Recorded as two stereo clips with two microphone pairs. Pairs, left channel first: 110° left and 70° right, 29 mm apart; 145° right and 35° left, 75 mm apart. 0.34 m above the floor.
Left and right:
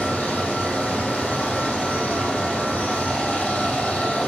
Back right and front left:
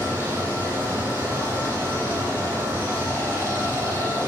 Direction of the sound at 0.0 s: 85° left.